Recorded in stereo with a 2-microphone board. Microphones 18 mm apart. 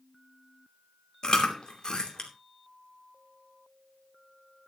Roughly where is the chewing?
Left.